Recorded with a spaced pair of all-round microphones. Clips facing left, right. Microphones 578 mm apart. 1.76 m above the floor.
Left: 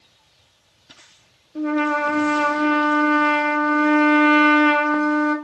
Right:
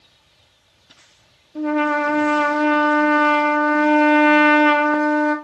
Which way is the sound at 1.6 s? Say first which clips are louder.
Right 1 dB; 25° right (ahead or behind).